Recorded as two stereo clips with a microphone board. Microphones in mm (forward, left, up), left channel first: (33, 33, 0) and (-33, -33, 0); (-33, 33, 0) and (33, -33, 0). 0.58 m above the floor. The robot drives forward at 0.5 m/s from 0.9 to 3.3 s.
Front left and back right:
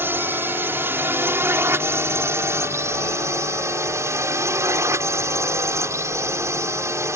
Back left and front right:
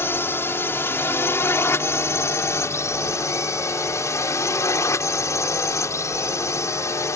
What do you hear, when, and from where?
0.0 s a drone: straight behind